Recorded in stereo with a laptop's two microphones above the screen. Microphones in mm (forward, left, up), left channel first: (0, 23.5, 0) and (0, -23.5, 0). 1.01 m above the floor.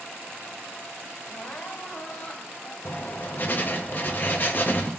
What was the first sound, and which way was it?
Crying, 35° left (ahead or behind).